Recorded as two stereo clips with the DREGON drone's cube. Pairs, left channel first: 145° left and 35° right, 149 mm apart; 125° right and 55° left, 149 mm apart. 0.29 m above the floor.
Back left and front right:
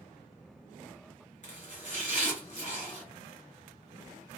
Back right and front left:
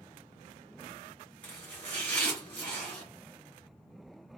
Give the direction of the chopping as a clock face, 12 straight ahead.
7 o'clock.